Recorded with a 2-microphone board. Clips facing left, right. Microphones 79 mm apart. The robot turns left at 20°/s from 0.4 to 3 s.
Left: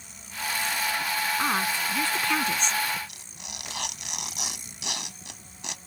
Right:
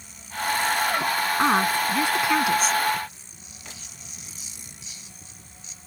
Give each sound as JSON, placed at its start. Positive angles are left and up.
{"t": 1.4, "sound": "a woman speaking", "azimuth_deg": -150}
{"t": 3.1, "sound": "tearing paper", "side_deg": 85}